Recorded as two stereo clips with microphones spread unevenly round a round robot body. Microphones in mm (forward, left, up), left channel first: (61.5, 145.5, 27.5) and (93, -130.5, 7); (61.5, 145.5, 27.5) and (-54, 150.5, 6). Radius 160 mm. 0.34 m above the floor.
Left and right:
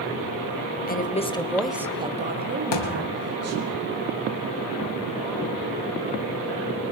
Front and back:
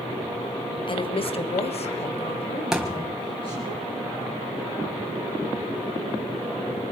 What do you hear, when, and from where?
0.9 s a woman speaking: 40° left, 2.5 m; by 3.7 s 70° right, 3.5 m
2.7 s a thud: 90° left, 3 m